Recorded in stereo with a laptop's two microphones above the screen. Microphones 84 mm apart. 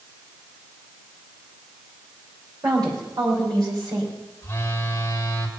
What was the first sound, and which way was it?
A woman speaking, 50° right (ahead or behind).